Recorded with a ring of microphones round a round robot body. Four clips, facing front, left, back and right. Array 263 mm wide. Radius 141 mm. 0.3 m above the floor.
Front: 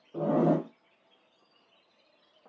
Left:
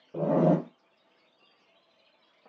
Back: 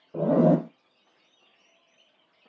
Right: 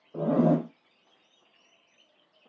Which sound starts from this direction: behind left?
A zipper, at 0.1 s.